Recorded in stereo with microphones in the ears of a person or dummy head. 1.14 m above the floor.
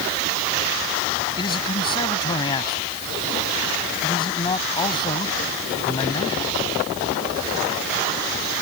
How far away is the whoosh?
I don't hear a whoosh.